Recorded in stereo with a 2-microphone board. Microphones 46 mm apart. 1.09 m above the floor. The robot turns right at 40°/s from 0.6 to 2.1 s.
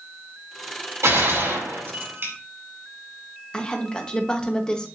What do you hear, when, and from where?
1.0 s a gunshot: 95° right, 4 m; by 2.3 s 50° right, 4 m
3.5 s a woman speaking: 20° left (ahead or behind), 1.2 m